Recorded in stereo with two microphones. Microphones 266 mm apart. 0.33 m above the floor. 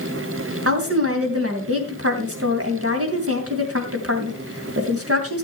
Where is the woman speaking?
60° right (ahead or behind), 2.5 m.